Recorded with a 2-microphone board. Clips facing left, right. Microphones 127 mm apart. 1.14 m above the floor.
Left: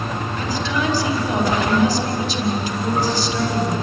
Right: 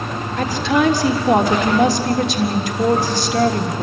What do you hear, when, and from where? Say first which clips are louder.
0.4 s a woman speaking: right 7 dB; 80° right, 3.5 m